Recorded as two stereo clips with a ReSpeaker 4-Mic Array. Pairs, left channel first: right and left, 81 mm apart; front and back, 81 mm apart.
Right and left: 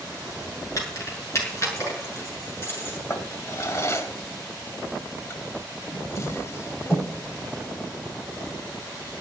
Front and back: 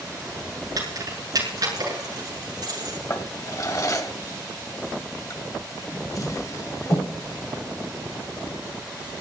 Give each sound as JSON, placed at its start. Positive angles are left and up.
{"t": 0.8, "sound": "keys jangling", "azimuth_deg": -140, "distance_m": 7.0}
{"t": 3.1, "sound": "a drawer", "azimuth_deg": -40, "distance_m": 1.5}